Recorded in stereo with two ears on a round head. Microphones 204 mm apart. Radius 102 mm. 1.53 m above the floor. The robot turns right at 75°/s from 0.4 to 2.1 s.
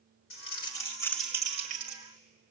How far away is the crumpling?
About 5 m.